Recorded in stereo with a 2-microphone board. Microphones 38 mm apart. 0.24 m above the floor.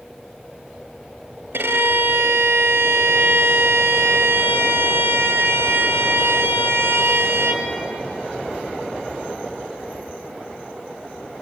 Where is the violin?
70° right (ahead or behind), 3 m.